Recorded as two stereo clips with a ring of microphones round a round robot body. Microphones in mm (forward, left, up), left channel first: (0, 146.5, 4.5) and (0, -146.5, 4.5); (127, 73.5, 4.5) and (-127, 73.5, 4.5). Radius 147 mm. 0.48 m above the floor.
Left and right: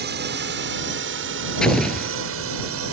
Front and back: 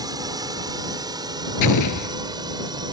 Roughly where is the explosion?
Ahead.